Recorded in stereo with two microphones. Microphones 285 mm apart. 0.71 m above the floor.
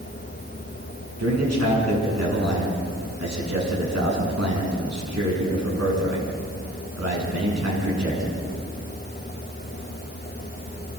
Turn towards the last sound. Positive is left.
turn(degrees=-65)  # may be behind; listen again after turning